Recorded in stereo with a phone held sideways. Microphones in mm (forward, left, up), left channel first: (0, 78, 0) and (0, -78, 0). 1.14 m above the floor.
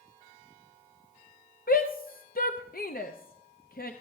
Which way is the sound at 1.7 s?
70° left (ahead or behind).